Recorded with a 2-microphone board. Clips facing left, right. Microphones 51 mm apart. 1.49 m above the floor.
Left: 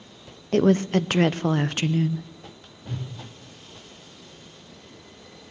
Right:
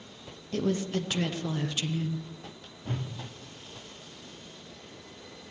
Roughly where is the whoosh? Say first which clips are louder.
Even; right.